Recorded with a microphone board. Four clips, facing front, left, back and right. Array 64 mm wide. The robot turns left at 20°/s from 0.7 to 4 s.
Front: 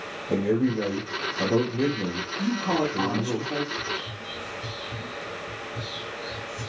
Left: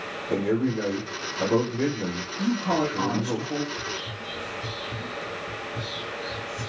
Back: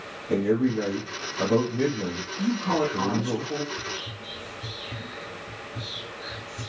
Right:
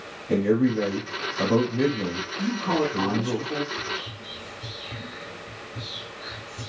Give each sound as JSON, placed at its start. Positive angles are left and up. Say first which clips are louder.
{"t": 0.3, "sound": "a man speaking", "louder": "right 3 dB, back 1 dB", "azimuth_deg": -80, "distance_m": 2.5}
{"t": 2.4, "sound": "a man speaking", "louder": "even, back 1 dB", "azimuth_deg": -130, "distance_m": 1.1}
{"t": 3.7, "sound": "whispering", "louder": "right 1 dB, front 3 dB", "azimuth_deg": -155, "distance_m": 1.7}